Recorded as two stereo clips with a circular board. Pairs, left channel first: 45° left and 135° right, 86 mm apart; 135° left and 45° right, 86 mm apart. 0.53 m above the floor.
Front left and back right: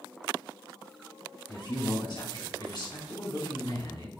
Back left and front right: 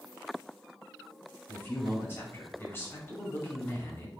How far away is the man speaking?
About 2 m.